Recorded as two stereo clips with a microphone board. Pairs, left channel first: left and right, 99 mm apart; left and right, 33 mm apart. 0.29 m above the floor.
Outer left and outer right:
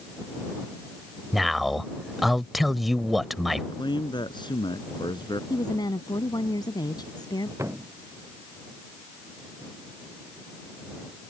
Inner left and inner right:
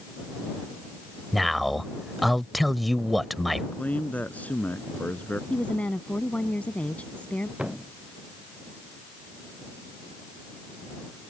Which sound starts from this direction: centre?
A man speaking, at 1.3 s.